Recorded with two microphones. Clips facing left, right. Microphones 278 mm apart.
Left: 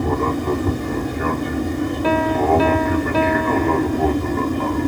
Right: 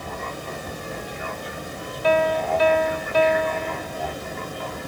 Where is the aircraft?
65° left (ahead or behind).